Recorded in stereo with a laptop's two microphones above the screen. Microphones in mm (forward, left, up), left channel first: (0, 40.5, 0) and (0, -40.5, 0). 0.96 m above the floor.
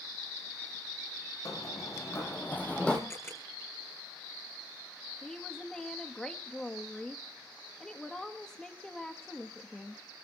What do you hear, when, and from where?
1.4 s running footsteps: 45° left (ahead or behind), 3 m; by 3.0 s 10° left (ahead or behind), 2.5 m
3.1 s a camera shutter: 30° left (ahead or behind), 7 m
5.2 s a woman speaking: 10° left (ahead or behind), 1.5 m